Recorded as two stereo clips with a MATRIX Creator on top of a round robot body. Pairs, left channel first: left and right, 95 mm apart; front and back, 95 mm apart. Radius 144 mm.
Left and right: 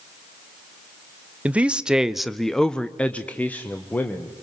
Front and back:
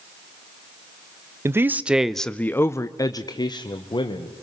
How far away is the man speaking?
About 0.8 m.